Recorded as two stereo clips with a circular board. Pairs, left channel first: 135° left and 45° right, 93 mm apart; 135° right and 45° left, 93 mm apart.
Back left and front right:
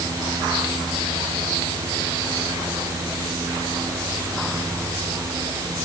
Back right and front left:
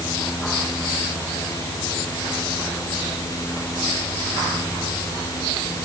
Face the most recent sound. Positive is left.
No sound to turn to.